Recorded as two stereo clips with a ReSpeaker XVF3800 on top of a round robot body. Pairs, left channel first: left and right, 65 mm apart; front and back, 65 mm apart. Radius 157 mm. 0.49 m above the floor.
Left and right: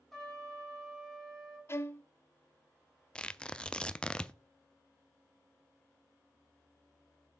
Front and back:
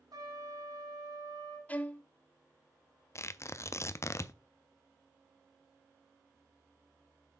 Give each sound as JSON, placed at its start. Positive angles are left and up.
{"t": 0.1, "sound": "a trumpet", "azimuth_deg": 175, "distance_m": 4.0}
{"t": 1.7, "sound": "a violin", "azimuth_deg": 60, "distance_m": 1.0}
{"t": 3.1, "sound": "tearing paper", "azimuth_deg": 20, "distance_m": 0.7}